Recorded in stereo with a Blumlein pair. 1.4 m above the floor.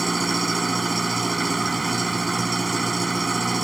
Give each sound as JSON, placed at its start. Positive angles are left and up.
{"t": 0.0, "sound": "an engine running", "azimuth_deg": -10}